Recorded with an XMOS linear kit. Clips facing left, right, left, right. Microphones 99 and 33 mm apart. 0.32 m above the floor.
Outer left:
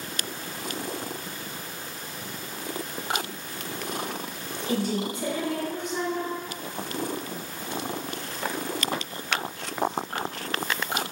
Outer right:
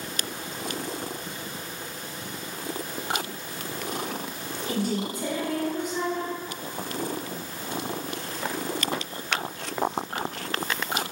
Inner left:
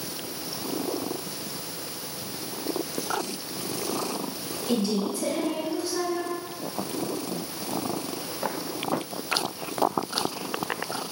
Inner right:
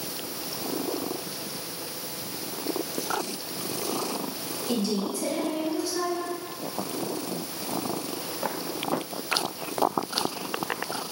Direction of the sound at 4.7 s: 25° left (ahead or behind).